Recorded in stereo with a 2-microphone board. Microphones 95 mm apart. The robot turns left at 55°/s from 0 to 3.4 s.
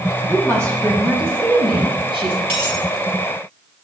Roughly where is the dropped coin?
Right.